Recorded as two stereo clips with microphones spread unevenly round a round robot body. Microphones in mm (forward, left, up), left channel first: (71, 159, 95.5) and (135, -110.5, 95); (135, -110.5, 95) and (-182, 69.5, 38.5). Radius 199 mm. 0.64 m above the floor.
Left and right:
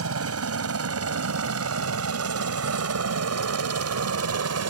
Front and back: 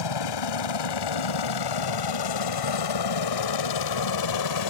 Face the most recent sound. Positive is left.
turn(degrees=-55)